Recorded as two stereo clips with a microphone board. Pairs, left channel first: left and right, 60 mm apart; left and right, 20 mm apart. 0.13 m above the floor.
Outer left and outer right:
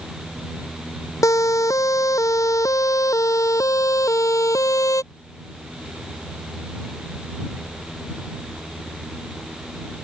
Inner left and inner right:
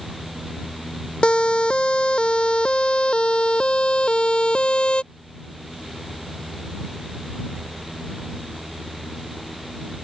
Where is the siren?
65° left (ahead or behind).